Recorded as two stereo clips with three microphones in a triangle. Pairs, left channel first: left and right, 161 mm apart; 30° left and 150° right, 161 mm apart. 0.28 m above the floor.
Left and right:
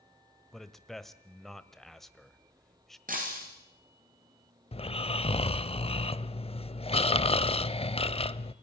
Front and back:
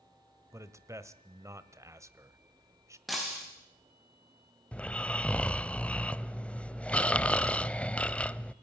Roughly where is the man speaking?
Behind.